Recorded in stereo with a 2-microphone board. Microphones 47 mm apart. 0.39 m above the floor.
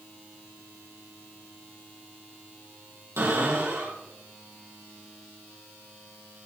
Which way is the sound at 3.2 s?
85° right.